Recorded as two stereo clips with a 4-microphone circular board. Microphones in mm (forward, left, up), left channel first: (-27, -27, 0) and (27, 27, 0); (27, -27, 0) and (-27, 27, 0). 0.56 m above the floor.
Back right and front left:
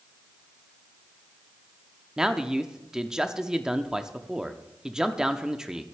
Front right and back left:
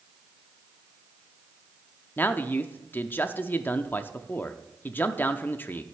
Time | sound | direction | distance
2.2 | a man speaking | 30° right | 0.6 m